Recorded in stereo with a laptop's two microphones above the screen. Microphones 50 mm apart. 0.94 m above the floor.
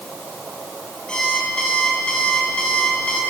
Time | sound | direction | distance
1.1 | an alarm clock | 15° left (ahead or behind) | 7.5 m